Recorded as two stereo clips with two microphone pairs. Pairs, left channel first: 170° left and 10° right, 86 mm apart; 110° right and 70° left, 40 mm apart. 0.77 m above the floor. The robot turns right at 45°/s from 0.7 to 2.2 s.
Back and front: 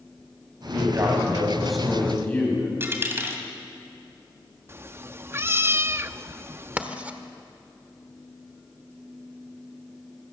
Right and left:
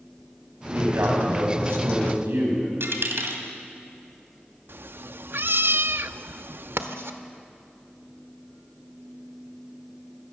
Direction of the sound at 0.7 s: 35° left.